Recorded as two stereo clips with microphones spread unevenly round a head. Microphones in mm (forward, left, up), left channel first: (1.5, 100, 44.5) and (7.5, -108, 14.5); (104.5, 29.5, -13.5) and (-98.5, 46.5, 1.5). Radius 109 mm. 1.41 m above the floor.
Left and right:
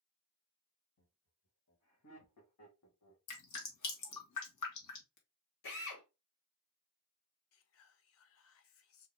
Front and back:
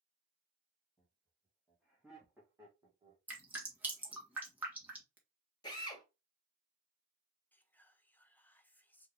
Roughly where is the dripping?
Left.